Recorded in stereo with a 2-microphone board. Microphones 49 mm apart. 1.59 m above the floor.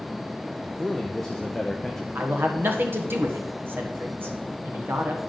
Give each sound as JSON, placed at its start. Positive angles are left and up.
{"t": 0.8, "sound": "a man speaking", "side_deg": 5, "distance_m": 0.6}
{"t": 2.1, "sound": "a man speaking", "side_deg": -50, "distance_m": 1.3}